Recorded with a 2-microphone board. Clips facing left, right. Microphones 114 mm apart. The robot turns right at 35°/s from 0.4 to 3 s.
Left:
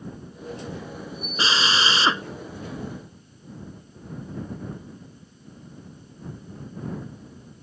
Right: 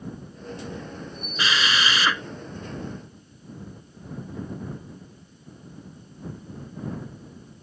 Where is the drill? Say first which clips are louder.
Left 1 dB; 30° left (ahead or behind).